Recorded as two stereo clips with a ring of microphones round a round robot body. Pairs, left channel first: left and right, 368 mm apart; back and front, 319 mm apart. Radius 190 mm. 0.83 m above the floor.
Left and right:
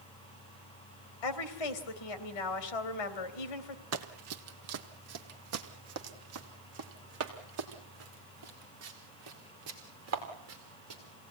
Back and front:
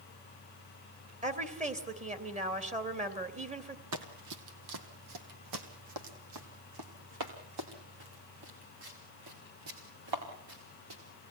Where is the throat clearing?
No throat clearing in this recording.